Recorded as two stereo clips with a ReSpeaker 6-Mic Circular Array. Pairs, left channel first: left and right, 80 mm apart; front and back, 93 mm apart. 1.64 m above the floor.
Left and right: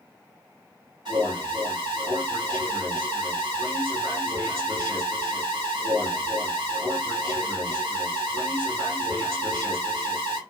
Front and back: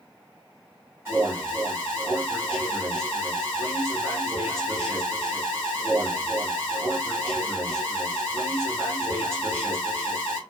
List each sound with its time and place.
1.1 s an alarm: 115° right, 1.8 m